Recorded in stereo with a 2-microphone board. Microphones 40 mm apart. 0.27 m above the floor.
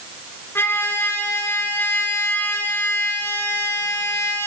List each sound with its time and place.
0.6 s a trumpet: 70° left (ahead or behind), 3 m